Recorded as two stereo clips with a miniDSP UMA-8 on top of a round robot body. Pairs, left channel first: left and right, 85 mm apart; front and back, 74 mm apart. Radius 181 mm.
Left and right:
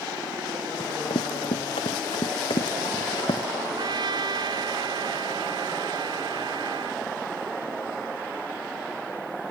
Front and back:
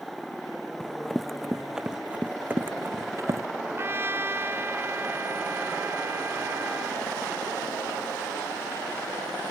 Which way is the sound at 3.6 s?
120° right.